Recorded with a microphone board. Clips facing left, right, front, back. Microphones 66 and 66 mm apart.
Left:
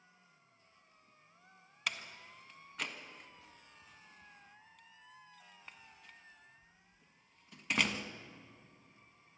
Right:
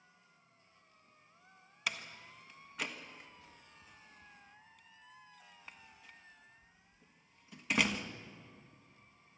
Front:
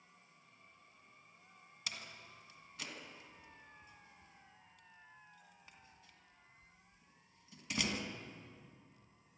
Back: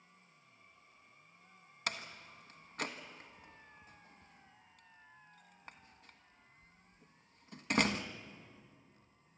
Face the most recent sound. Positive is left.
turn(degrees=-175)